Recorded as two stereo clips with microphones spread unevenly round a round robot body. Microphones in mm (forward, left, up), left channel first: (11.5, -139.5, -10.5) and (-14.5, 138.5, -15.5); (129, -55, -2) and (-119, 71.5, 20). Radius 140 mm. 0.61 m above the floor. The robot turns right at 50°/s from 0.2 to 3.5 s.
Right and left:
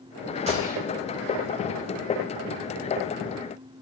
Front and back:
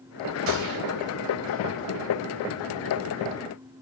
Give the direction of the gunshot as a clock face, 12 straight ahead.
7 o'clock.